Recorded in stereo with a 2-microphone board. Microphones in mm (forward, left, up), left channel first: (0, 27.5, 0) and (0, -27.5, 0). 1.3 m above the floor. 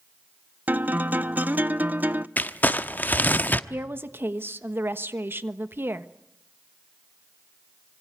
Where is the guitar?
30° right (ahead or behind), 0.6 m.